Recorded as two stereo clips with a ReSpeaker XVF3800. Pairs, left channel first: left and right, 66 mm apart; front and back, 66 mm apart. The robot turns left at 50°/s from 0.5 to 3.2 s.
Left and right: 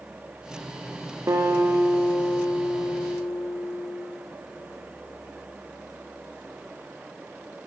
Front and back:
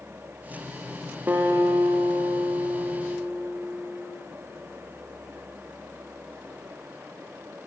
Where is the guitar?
125° right, 6.5 m; by 4.1 s 140° left, 6.5 m.